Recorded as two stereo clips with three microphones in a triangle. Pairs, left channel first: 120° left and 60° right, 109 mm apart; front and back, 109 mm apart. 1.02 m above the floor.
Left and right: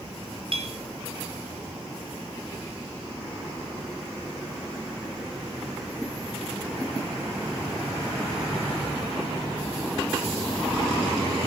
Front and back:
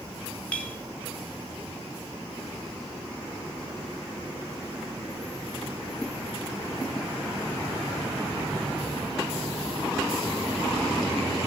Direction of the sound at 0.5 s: 75° right.